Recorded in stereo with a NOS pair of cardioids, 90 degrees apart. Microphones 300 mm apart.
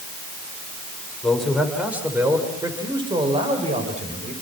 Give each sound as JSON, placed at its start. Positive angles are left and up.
{"t": 1.2, "sound": "a man speaking", "azimuth_deg": 0, "distance_m": 6.5}